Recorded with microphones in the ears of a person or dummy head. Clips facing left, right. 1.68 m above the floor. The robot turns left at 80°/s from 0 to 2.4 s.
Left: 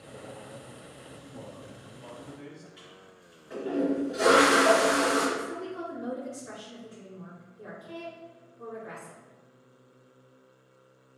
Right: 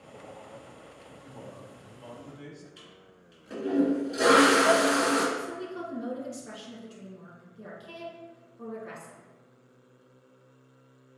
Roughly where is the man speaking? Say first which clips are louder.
Even; ahead left.